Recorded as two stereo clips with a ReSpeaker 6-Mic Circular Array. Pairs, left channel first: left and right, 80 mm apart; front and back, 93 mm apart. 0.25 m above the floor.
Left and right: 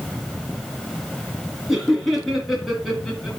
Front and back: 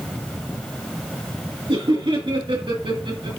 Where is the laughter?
175° right, 4 m; by 3.3 s straight behind, 3.5 m.